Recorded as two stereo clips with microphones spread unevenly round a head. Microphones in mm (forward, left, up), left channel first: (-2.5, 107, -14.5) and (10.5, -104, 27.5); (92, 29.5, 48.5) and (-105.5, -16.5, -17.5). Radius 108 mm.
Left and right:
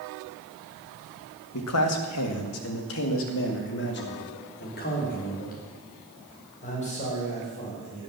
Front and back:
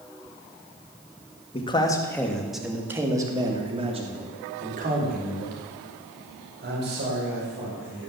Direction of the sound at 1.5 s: 80° left.